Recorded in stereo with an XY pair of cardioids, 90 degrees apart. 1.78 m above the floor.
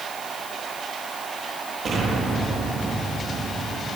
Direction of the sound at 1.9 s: 60° right.